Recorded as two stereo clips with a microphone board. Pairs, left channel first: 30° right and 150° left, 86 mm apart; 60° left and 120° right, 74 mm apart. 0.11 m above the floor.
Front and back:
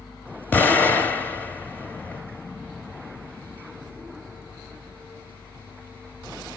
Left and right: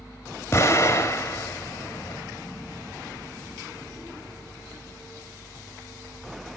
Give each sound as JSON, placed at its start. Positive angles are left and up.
{"t": 0.5, "sound": "an explosion", "azimuth_deg": 25, "distance_m": 1.9}